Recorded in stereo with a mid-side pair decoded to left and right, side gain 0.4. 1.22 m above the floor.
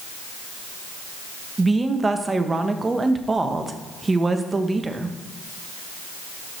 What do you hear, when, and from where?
1.6 s a woman speaking: 30° right, 1.1 m